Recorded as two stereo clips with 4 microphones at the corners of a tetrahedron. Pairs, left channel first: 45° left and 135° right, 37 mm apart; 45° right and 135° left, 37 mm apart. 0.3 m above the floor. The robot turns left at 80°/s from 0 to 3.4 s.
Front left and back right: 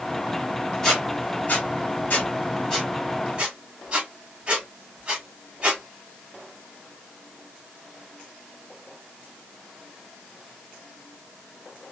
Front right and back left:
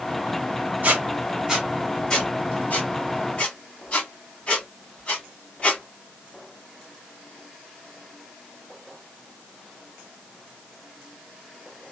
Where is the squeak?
125° left, 1.7 m; by 5.8 s 80° right, 1.7 m.